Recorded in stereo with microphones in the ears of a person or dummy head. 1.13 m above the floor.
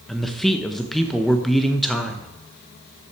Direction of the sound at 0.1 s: Centre (ahead or behind).